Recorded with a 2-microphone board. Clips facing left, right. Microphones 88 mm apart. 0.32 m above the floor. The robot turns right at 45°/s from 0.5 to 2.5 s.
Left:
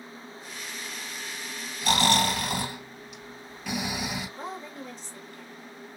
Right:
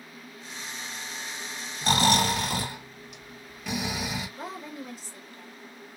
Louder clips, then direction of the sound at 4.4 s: Even; 5° right (ahead or behind).